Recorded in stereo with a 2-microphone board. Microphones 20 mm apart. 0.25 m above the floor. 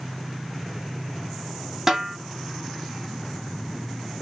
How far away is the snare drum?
About 1.5 m.